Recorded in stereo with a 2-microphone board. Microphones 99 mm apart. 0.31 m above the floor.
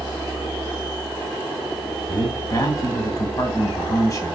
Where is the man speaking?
35° left (ahead or behind), 1.9 m.